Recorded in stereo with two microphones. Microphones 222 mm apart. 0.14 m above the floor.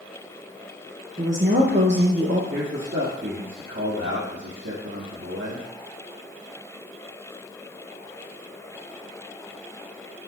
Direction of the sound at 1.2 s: 60° right (ahead or behind).